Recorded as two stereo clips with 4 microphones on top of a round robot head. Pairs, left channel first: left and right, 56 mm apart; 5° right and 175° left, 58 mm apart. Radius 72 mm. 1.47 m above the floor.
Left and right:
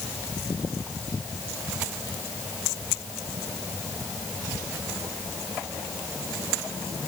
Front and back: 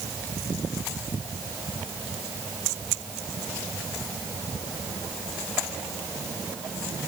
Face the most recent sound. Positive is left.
No sound to turn to.